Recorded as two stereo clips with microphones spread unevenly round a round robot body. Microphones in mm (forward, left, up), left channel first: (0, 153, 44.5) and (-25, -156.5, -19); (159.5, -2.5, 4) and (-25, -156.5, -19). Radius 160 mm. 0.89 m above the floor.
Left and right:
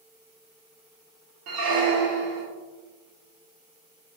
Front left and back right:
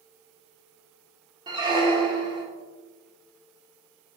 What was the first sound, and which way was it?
A squeak, 70° right.